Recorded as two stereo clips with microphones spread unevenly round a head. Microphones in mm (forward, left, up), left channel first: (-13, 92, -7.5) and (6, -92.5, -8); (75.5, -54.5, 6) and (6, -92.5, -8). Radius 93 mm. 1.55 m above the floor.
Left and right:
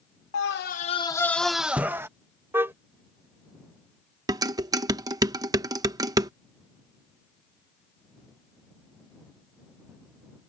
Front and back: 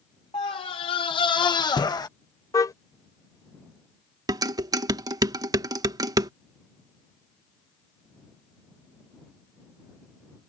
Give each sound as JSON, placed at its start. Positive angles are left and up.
{"t": 0.3, "sound": "a scream", "azimuth_deg": 75}
{"t": 2.5, "sound": "a car horn", "azimuth_deg": -5}
{"t": 4.3, "sound": "dishes clattering", "azimuth_deg": -145}